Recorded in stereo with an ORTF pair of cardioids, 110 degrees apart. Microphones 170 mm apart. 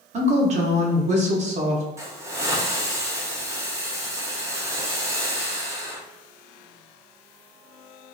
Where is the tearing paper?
I don't hear tearing paper.